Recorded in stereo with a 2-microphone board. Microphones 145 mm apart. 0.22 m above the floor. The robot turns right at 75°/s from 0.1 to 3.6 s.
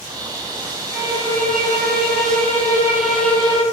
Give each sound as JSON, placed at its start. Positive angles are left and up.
{"t": 0.9, "sound": "a violin", "azimuth_deg": -165, "distance_m": 4.5}